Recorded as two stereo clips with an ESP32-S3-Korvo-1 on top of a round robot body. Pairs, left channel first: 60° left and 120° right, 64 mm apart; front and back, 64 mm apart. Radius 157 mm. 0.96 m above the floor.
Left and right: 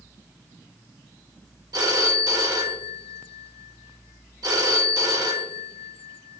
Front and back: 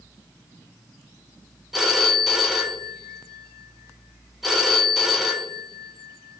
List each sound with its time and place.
1.7 s a phone ringing: 95° right, 1.2 m